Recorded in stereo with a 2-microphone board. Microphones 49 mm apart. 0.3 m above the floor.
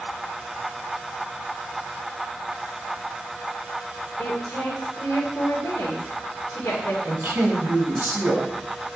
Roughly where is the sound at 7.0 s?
Right.